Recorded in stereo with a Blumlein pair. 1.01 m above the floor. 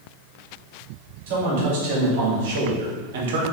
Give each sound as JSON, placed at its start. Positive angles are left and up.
{"t": 1.3, "sound": "a man speaking", "azimuth_deg": -50, "distance_m": 1.9}